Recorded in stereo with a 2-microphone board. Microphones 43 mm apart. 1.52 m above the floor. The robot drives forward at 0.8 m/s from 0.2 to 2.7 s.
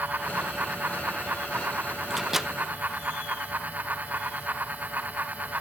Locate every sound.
2.1 s a microwave: 10° right (ahead or behind), 0.9 m; by 2.5 s 5° right (ahead or behind), 1.2 m